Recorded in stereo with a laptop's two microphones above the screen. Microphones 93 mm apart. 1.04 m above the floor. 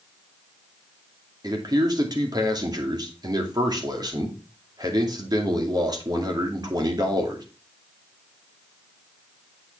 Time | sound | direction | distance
1.4 | a man speaking | 40° right (ahead or behind) | 2.5 m